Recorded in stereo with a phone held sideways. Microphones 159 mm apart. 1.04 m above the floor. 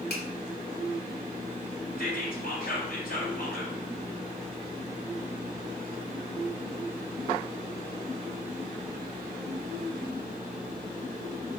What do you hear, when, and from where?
0.1 s a finger snap: 85° left, 2.5 m
2.0 s whispering: 70° left (ahead or behind), 4.5 m